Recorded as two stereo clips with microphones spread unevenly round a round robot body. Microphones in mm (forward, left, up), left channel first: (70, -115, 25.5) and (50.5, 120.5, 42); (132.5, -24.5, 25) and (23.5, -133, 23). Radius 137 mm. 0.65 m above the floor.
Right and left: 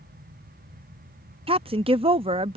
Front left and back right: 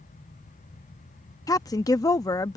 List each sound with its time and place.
1.5 s a woman speaking: 60° left